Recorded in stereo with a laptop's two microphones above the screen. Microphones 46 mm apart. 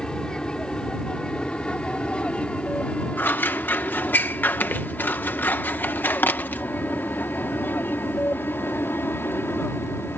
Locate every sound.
0.0 s an aircraft: 15° left (ahead or behind); by 10.2 s 55° left (ahead or behind)
3.2 s scissors: 45° left (ahead or behind)